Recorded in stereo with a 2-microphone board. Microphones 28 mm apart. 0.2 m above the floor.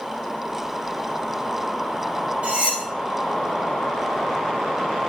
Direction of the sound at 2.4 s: 45° right (ahead or behind).